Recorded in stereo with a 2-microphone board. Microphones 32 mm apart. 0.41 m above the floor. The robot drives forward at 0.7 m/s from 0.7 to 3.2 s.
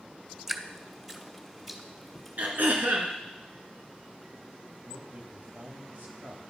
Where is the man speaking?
65° right (ahead or behind), 1.8 m.